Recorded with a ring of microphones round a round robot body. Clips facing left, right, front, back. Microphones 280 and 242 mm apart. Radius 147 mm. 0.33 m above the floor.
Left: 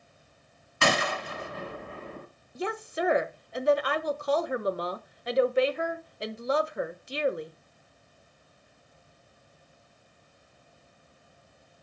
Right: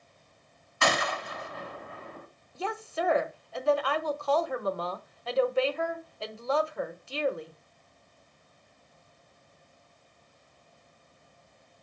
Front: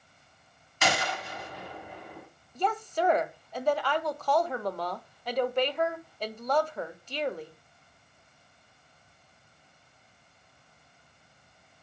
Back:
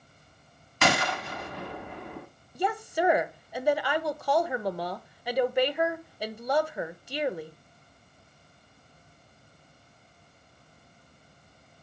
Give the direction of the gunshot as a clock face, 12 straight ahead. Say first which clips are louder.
Left 2 dB, back 3 dB; 7 o'clock.